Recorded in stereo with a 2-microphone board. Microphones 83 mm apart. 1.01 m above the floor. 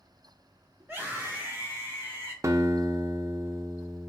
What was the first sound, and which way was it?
A scream, 25° right (ahead or behind).